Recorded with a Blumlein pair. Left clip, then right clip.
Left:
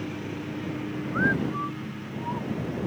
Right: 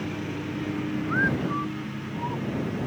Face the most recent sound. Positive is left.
turn(degrees=-5)